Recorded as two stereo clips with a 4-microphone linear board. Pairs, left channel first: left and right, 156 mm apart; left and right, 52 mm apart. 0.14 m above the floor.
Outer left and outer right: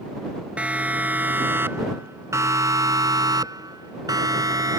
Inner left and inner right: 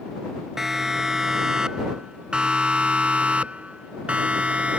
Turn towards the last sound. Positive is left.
turn(degrees=-20)  # may be behind; listen again after turning